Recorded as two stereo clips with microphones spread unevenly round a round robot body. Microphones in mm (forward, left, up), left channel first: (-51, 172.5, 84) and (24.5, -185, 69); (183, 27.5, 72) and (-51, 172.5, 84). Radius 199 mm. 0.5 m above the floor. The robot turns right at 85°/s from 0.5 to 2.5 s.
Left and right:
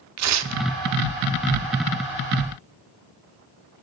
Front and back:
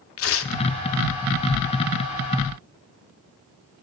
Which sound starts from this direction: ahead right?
Tearing paper, at 0.2 s.